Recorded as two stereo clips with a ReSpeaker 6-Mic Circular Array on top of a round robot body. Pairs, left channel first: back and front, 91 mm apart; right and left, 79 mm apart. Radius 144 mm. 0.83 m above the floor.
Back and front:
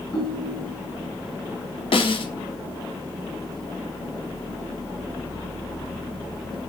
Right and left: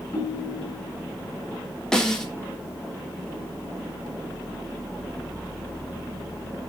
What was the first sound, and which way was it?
A ringtone, 125° right.